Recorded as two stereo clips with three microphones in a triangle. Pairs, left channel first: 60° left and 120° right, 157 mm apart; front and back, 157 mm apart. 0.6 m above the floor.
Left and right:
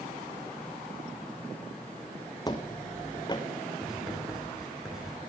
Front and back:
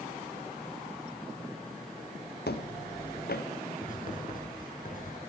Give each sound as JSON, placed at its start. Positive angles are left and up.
{"t": 2.5, "sound": "footsteps", "azimuth_deg": -5, "distance_m": 2.5}
{"t": 3.8, "sound": "writing", "azimuth_deg": -35, "distance_m": 6.5}